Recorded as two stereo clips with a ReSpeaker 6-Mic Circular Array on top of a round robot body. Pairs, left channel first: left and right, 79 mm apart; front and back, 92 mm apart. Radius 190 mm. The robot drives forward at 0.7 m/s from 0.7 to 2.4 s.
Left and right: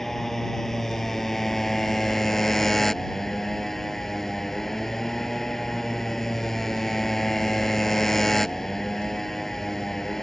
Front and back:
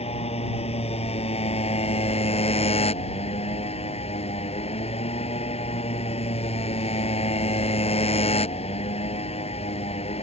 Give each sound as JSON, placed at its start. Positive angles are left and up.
{"t": 0.0, "sound": "a motorcycle", "azimuth_deg": 5}